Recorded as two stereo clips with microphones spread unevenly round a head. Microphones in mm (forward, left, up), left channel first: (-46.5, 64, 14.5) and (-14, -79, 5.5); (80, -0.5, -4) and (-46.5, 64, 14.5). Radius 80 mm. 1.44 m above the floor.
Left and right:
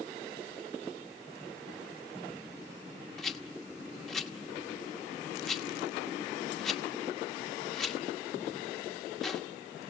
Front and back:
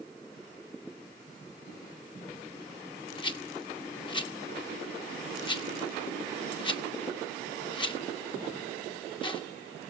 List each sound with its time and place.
3.2 s a rattle: 20° left, 0.9 m